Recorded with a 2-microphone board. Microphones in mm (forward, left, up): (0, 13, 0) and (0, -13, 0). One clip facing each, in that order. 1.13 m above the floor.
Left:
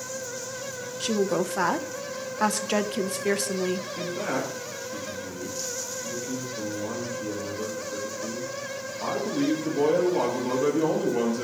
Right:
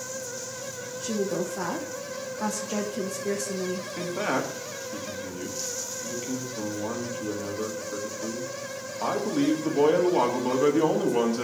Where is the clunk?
I don't hear a clunk.